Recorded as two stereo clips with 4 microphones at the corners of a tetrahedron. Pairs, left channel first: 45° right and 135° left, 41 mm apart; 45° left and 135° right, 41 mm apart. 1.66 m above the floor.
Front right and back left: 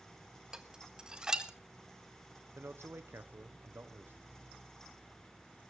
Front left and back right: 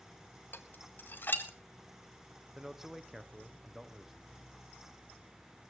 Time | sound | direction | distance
0.5 | dishes clattering | 70° left | 1.4 m
2.5 | a man speaking | 145° left | 1.3 m